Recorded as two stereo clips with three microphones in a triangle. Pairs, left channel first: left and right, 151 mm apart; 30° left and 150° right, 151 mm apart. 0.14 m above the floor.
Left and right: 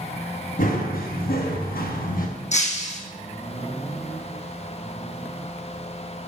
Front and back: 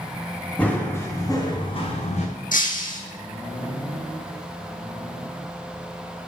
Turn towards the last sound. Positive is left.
turn(degrees=55)